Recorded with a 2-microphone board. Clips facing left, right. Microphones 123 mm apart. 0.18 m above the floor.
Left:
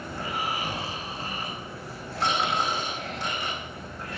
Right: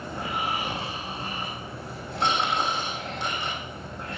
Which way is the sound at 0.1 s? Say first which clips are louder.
Right 1 dB; 20° right (ahead or behind).